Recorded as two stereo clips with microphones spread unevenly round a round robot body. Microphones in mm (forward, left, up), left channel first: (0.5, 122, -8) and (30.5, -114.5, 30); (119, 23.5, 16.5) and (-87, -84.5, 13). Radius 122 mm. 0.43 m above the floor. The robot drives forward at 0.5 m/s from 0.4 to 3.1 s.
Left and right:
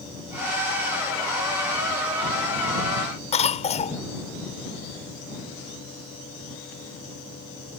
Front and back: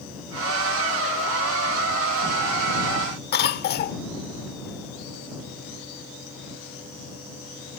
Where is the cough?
55° left.